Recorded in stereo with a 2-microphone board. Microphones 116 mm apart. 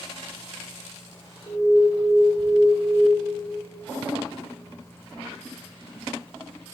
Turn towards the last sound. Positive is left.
turn(degrees=35)  # may be behind; listen again after turning